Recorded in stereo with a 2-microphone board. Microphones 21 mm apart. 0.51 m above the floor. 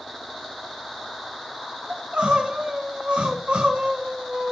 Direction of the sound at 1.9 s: 80° right.